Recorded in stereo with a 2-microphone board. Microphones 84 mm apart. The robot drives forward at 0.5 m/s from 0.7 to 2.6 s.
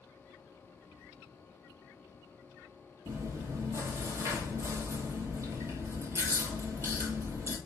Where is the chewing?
35° right (ahead or behind), 0.9 m.